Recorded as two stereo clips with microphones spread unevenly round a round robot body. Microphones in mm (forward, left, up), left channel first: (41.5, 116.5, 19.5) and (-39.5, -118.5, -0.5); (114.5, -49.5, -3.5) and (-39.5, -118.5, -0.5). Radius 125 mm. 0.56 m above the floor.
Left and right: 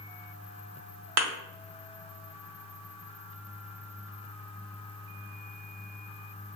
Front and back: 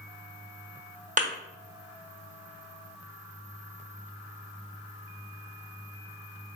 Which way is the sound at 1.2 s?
110° right.